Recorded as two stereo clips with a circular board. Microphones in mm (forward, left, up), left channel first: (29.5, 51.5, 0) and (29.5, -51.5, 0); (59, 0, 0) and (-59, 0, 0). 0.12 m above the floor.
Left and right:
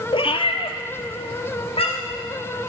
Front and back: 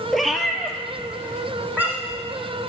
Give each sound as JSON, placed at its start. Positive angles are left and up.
{"t": 0.1, "sound": "a cat meowing", "azimuth_deg": 85, "distance_m": 0.7}